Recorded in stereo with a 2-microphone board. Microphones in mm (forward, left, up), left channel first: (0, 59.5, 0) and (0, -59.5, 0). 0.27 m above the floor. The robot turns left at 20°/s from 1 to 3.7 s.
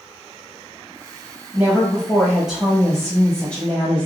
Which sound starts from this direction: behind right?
A woman speaking, at 1.5 s.